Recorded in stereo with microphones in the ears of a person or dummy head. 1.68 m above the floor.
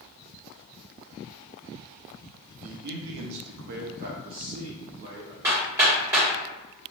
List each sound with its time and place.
2.6 s a man speaking: 40° right (ahead or behind), 0.5 m; by 5.3 s 30° right (ahead or behind), 1.4 m
5.4 s hammering: 10° right (ahead or behind), 1.6 m